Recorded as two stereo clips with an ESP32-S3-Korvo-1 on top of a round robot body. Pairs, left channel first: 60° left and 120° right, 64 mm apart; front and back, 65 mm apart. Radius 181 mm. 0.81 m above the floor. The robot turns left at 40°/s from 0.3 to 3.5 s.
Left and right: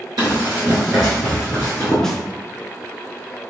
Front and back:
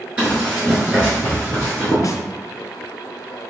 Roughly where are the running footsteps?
Right.